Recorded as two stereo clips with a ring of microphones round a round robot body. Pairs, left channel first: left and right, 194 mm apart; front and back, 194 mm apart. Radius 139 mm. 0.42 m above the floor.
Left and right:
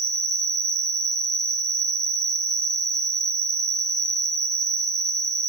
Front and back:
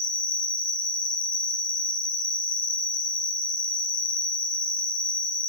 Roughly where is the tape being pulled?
No tape being pulled in this recording.